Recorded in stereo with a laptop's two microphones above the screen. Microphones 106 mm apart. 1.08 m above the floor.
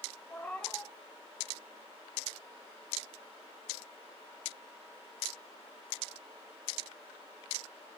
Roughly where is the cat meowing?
Centre.